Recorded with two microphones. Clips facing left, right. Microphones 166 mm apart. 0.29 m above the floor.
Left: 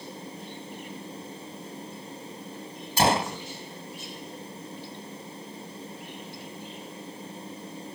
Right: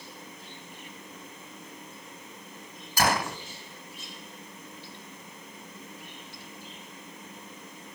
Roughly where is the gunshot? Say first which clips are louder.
Left 3 dB; left.